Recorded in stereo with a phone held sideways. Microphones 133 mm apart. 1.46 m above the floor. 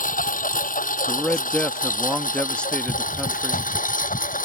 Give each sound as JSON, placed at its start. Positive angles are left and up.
{"t": 0.0, "sound": "a lawn mower", "side_deg": 85}
{"t": 1.1, "sound": "a man speaking", "side_deg": 10}